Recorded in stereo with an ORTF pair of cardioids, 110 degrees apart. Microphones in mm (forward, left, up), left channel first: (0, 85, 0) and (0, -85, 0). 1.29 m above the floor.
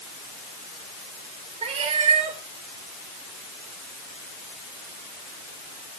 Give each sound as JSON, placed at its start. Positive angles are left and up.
{"t": 1.6, "sound": "a cat meowing", "azimuth_deg": -40, "distance_m": 2.5}